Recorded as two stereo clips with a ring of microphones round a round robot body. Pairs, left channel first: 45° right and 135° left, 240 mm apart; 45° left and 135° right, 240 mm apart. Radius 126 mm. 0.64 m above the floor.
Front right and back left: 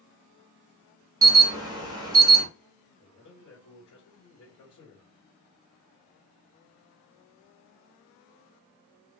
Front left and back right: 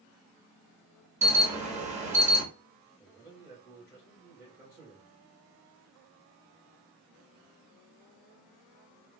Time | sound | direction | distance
1.2 | an alarm | 165° right | 1.4 m
3.0 | a man speaking | 55° right | 2 m